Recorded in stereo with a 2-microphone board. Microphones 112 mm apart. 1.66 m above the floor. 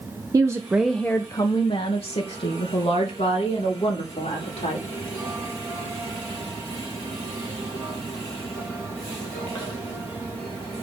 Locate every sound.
0.3 s a woman speaking: 30° right (ahead or behind), 0.8 m; by 4.8 s 75° left (ahead or behind), 3 m